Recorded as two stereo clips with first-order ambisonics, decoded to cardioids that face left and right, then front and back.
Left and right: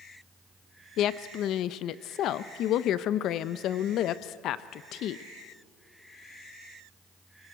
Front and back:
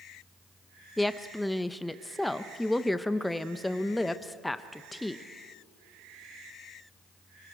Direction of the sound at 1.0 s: 85° left.